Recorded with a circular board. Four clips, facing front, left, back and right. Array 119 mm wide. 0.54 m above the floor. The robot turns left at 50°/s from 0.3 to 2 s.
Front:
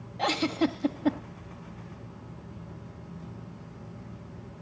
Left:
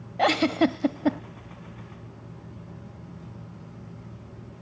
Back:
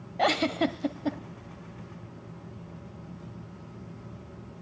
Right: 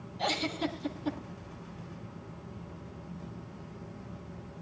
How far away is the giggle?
About 1.2 m.